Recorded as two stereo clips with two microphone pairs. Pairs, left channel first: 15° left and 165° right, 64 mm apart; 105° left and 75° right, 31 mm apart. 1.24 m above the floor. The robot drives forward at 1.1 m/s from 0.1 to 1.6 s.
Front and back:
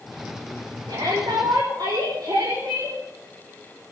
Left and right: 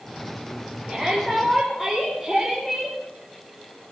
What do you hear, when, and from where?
0.9 s a shout: 150° right, 3.5 m; by 3.0 s 155° right, 4.5 m